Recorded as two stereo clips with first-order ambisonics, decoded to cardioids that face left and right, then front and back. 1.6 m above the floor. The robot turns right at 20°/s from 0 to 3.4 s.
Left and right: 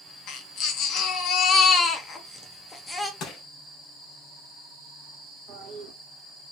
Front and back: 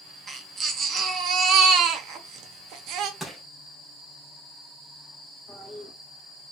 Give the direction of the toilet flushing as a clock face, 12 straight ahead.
3 o'clock.